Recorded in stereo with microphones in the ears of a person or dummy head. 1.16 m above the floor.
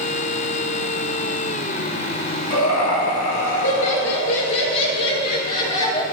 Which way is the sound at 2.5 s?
80° left.